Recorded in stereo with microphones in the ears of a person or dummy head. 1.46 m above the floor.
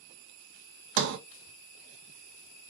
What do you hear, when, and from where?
1.0 s a sliding door: 60° right (ahead or behind), 0.6 m